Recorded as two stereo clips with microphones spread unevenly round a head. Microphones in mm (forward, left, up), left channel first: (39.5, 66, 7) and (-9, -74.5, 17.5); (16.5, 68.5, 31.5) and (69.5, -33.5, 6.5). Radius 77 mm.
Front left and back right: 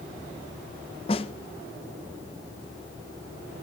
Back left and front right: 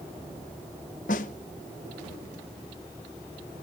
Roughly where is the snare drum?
Behind left.